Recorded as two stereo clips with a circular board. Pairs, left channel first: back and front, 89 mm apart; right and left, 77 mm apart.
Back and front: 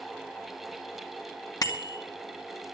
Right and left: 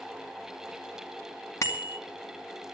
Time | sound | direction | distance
1.6 | a bicycle bell | 135° right | 2.5 m